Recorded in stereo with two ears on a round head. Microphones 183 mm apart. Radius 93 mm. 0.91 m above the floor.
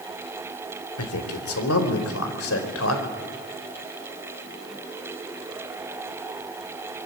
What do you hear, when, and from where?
1.0 s a man speaking: 70° left (ahead or behind), 3.5 m; by 3.0 s 65° left (ahead or behind), 4.5 m